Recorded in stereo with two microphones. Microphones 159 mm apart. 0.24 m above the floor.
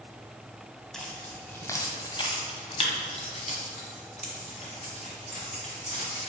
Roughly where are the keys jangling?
Centre.